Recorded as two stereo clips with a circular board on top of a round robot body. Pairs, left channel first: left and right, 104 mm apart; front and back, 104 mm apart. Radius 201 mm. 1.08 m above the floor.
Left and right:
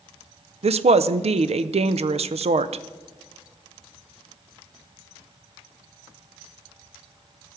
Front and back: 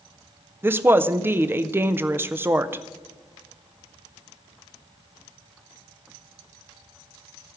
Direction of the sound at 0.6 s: 110° right.